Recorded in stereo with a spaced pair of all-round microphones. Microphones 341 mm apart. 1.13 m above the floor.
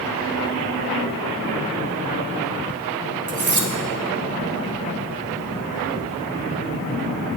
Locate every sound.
3.3 s cutlery clinking: 55° right (ahead or behind), 0.8 m